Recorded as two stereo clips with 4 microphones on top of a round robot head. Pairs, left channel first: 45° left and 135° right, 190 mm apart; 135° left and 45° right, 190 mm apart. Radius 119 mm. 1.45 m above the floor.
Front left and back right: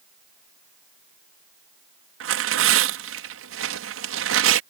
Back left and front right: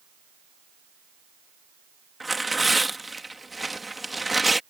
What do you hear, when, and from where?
2.2 s tearing paper: 135° right